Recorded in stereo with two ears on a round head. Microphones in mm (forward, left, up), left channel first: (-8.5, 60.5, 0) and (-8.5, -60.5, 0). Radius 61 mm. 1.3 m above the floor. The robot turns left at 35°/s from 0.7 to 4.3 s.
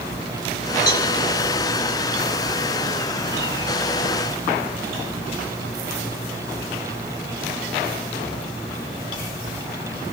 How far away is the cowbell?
About 4 m.